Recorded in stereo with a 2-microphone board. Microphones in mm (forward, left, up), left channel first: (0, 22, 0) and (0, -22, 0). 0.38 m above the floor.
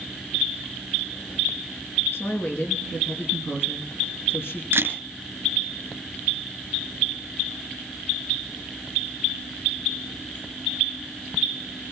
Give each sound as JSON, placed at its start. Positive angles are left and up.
{"t": 2.1, "sound": "a woman speaking", "side_deg": 60, "distance_m": 4.5}
{"t": 4.7, "sound": "a camera shutter", "side_deg": -55, "distance_m": 2.5}